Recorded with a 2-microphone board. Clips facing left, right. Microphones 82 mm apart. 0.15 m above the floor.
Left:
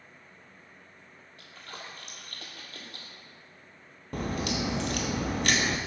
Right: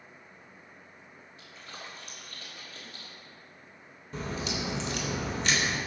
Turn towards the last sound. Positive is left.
turn(degrees=60)  # may be behind; listen again after turning